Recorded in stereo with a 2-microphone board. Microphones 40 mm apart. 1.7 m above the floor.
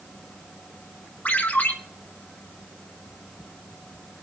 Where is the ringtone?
50° left (ahead or behind), 3 m.